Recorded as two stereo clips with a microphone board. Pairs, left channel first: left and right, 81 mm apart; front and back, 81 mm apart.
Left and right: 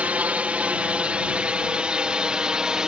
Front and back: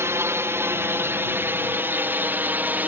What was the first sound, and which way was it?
A drone, 150° right.